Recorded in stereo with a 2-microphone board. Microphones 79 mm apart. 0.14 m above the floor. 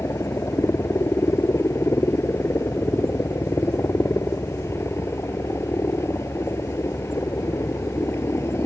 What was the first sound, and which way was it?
A helicopter, 35° left (ahead or behind).